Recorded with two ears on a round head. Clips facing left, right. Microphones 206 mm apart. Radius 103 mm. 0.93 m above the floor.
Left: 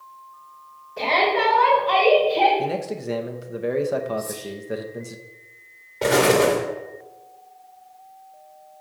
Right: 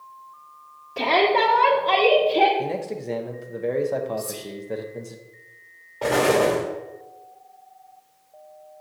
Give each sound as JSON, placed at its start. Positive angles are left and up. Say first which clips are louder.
{"t": 1.0, "sound": "a shout", "louder": "right 2 dB", "side_deg": -80, "distance_m": 1.7}
{"t": 2.6, "sound": "a man speaking", "louder": "left 1 dB", "side_deg": 5, "distance_m": 0.7}
{"t": 4.2, "sound": "whispering", "louder": "left 2 dB", "side_deg": -65, "distance_m": 2.0}
{"t": 6.0, "sound": "an explosion", "louder": "left 2 dB", "side_deg": 25, "distance_m": 1.8}